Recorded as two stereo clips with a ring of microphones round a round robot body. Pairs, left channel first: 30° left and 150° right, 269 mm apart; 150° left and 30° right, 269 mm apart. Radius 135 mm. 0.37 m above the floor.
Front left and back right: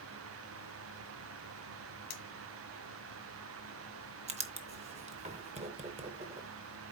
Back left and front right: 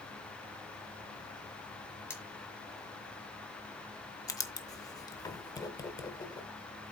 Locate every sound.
2.1 s cutlery clinking: 70° left, 1.7 m
4.3 s writing: 155° right, 0.6 m